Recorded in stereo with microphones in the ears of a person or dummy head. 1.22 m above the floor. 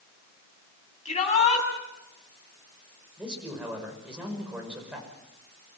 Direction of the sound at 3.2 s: 5° right (ahead or behind).